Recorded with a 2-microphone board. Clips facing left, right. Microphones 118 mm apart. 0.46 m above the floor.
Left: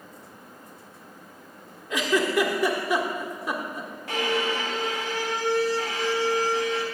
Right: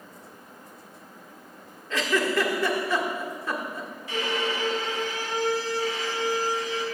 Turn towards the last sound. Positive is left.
turn(degrees=65)  # may be behind; listen again after turning